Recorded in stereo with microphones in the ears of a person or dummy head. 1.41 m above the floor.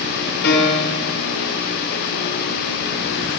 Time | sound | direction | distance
0.4 | a piano | 90° left | 5.5 m